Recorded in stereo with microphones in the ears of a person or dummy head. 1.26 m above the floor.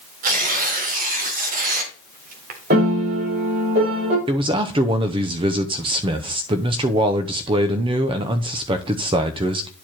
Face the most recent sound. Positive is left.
turn(degrees=-25)  # may be behind; listen again after turning